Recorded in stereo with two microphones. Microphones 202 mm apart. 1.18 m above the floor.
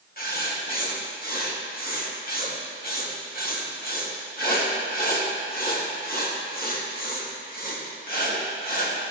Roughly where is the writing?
Left.